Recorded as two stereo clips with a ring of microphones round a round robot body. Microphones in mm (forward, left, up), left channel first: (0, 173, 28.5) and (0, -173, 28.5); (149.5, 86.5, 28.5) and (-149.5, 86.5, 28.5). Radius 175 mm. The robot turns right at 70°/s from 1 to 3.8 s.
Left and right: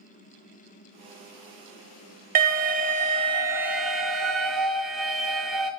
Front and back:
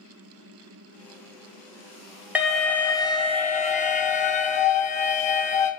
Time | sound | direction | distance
2.4 | an alarm | 100° right | 0.6 m